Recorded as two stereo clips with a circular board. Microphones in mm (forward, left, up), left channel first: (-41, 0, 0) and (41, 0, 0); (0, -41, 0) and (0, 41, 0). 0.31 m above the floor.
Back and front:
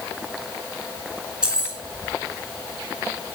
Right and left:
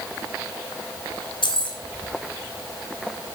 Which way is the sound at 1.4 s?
80° right.